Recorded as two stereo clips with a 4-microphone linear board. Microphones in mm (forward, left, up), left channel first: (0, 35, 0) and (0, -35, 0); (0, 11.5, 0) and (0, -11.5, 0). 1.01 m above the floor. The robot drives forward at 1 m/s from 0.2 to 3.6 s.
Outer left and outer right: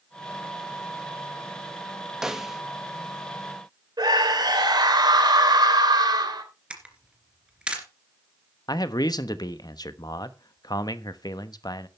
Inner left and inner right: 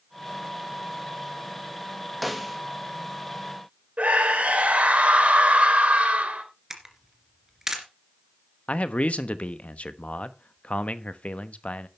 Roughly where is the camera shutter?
Centre.